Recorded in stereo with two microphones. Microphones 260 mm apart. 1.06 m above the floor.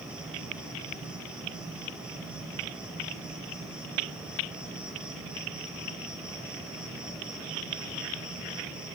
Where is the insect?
5° right (ahead or behind), 4 m.